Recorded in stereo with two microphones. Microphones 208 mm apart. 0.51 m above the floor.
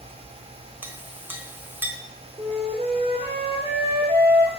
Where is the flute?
15° right (ahead or behind), 2.5 m.